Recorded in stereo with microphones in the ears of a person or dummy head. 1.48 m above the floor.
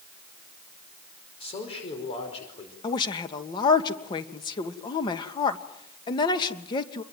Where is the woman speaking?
30° left (ahead or behind), 2 m.